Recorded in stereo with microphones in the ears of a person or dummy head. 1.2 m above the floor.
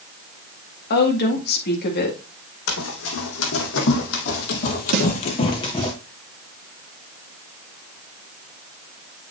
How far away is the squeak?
No squeak in this recording.